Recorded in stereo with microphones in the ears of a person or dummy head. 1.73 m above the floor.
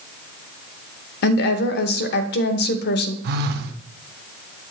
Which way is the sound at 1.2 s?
65° left (ahead or behind).